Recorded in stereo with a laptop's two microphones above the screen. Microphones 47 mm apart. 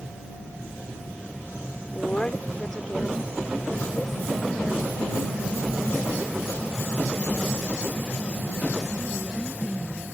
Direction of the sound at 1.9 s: 30° left (ahead or behind).